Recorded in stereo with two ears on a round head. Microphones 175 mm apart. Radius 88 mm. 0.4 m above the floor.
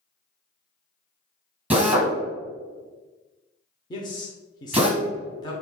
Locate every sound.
1.7 s a drill: 10° right (ahead or behind), 1.2 m
3.9 s a man speaking: 20° left (ahead or behind), 0.8 m